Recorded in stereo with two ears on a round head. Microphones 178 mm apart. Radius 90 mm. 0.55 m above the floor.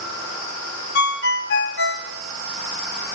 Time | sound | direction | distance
0.9 | a ringtone | 50° left (ahead or behind) | 0.5 m